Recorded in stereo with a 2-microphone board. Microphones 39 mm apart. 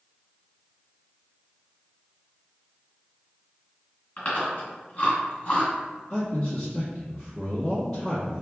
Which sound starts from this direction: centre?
A man speaking, at 6.1 s.